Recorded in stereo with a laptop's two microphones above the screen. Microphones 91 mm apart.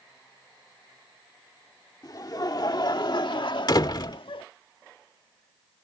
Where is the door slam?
50° left (ahead or behind).